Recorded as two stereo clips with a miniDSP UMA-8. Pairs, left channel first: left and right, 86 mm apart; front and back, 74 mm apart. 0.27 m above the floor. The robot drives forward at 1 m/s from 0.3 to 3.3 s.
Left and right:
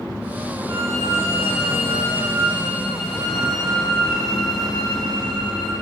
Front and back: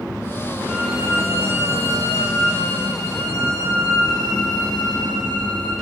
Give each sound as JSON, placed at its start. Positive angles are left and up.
{"t": 0.7, "sound": "a violin", "azimuth_deg": -105, "distance_m": 1.3}